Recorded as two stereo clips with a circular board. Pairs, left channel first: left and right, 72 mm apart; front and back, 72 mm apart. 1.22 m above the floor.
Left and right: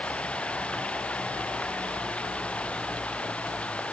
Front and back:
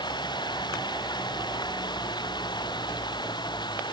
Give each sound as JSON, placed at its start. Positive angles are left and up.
{"t": 0.0, "sound": "running water", "azimuth_deg": 15}